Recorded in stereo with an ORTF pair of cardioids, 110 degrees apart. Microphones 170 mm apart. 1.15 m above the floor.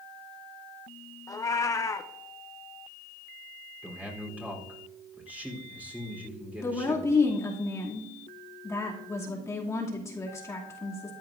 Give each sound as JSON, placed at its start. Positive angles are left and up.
{"t": 1.3, "sound": "a cat meowing", "azimuth_deg": 20, "distance_m": 0.9}
{"t": 3.8, "sound": "a man speaking", "azimuth_deg": -10, "distance_m": 3.5}
{"t": 6.6, "sound": "a woman speaking", "azimuth_deg": 20, "distance_m": 2.5}